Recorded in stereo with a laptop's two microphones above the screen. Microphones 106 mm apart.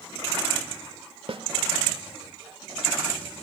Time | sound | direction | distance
1.3 | a snare drum | 60° right (ahead or behind) | 1.1 m